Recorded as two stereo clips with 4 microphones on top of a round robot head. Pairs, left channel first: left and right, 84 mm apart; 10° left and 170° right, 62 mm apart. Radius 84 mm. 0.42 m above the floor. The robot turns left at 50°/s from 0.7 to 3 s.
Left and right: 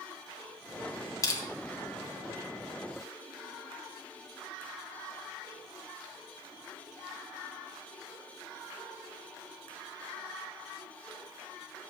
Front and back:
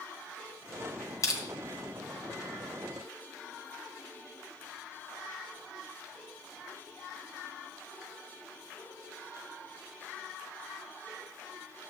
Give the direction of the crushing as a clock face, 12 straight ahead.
11 o'clock.